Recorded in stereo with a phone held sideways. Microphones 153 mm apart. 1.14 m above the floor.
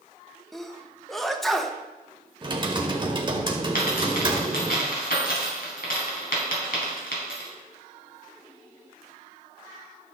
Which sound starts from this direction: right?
Typing on a keyboard, at 2.4 s.